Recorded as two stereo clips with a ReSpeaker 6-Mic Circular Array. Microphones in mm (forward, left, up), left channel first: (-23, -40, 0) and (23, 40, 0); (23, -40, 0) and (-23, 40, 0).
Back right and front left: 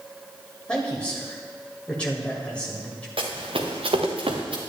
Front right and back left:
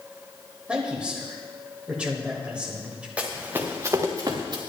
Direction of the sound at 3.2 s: 45° left.